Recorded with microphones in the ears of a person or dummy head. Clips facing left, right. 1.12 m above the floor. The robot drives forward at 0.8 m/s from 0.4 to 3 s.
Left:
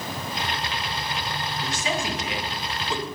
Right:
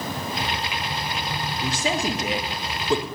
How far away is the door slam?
I don't hear a door slam.